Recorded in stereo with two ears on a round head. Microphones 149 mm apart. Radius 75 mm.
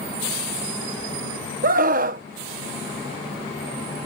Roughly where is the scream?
Right.